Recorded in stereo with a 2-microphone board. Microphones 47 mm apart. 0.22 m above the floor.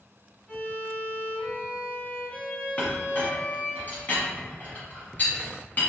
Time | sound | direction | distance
0.5 | a violin | 30° left (ahead or behind) | 0.8 m
2.8 | a clink | 40° left (ahead or behind) | 1.2 m